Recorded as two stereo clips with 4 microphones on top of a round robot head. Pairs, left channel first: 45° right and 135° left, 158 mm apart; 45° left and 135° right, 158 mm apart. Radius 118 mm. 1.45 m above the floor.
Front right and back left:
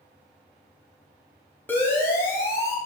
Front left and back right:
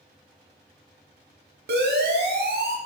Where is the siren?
125° right, 5.5 m; by 2.8 s 115° right, 5 m.